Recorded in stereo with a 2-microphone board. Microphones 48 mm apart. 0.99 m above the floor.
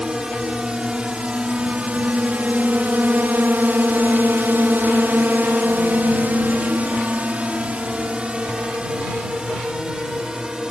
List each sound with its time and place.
0.0 s a drone: 15° right (ahead or behind); by 10.7 s 20° right (ahead or behind)